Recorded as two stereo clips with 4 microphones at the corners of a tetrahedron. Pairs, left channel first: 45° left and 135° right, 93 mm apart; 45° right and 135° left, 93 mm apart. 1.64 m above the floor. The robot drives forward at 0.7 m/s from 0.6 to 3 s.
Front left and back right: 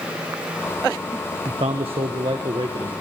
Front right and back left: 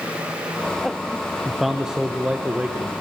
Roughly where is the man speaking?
Behind right.